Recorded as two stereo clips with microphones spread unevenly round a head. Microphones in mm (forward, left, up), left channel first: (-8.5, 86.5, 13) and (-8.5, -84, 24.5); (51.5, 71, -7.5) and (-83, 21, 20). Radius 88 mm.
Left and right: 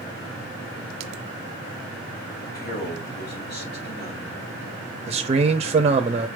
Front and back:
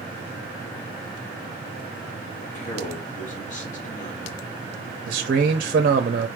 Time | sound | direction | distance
2.4 | a man speaking | 55° left | 2.0 m
5.1 | a man speaking | 135° right | 0.5 m